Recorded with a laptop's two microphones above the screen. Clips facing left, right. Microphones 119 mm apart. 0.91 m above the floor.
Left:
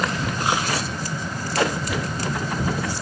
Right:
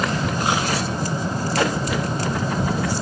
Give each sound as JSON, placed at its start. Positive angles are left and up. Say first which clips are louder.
{"t": 0.0, "sound": "a fan", "louder": "right 2 dB", "side_deg": -25}